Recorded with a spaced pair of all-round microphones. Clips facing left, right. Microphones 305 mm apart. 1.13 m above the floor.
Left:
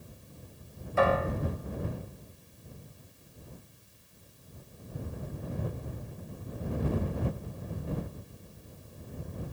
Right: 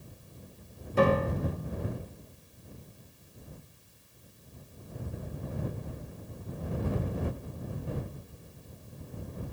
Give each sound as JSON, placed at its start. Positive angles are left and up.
{"t": 1.0, "sound": "a piano", "side_deg": -40}